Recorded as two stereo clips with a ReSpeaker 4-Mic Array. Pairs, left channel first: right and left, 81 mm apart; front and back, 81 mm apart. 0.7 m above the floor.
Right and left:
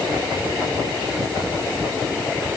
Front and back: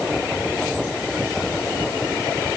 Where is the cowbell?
I don't hear a cowbell.